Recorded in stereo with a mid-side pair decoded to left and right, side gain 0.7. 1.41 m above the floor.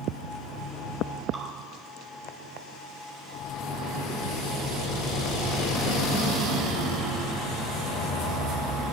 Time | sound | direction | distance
1.3 | dripping | 30° right | 5 m